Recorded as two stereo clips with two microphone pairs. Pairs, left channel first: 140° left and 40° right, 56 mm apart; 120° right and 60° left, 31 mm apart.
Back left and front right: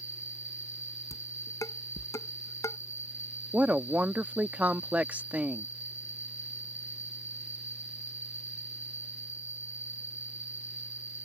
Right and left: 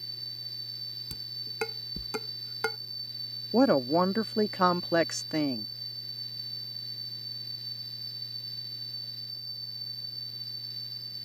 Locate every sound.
0.0 s an insect: 170° left
1.1 s dishes clattering: 150° left
3.5 s a woman speaking: 45° right